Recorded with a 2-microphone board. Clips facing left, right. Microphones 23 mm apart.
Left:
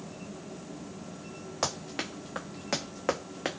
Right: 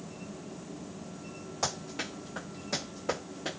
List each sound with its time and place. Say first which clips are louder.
1.6 s running footsteps: left 1 dB; 30° left (ahead or behind), 1.4 m; by 3.6 s 80° left, 0.9 m